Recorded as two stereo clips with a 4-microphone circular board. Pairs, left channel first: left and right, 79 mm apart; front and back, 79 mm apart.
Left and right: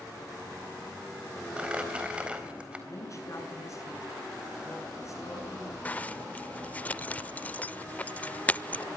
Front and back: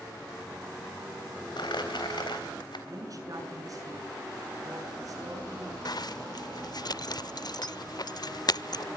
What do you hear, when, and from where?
1.6 s crumpling: 15° right, 4 m
2.9 s a woman speaking: 135° left, 7 m
5.8 s a zipper: 20° left, 0.6 m